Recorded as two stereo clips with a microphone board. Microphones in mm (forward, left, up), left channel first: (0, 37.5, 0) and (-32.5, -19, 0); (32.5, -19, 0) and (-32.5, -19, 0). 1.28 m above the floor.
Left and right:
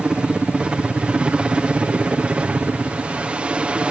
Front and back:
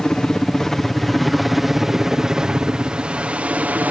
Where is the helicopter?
65° right; by 3.9 s 170° right.